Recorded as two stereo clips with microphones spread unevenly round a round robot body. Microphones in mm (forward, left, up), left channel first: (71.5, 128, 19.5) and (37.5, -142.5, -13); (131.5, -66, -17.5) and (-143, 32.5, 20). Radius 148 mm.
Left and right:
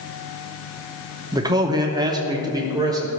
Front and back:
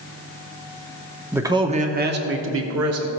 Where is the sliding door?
I don't hear a sliding door.